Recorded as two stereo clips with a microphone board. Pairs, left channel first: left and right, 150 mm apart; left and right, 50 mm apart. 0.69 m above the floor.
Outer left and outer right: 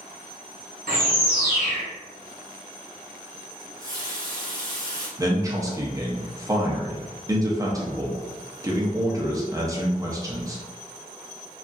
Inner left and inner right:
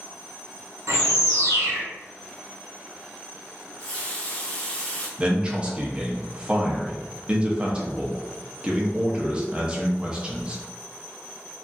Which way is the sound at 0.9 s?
75° right (ahead or behind).